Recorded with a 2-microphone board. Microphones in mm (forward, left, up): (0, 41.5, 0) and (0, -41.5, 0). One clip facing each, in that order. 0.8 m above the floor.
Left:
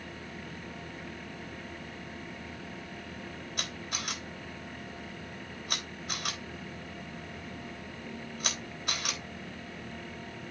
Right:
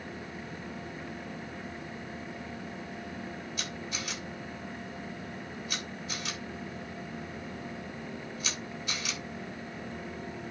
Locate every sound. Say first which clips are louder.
3.6 s a camera shutter: right 1 dB; 55° left (ahead or behind), 3.5 m